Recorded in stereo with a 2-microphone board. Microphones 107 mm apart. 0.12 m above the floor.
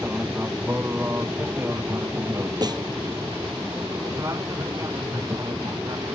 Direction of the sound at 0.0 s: 20° right (ahead or behind).